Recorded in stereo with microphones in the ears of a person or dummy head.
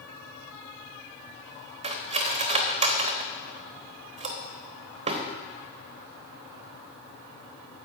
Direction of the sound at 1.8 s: 35° right (ahead or behind).